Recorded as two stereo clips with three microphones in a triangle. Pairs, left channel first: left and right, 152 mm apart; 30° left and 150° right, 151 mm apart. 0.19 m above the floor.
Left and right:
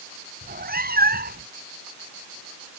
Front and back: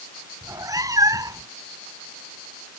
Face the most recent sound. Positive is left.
turn(degrees=-80)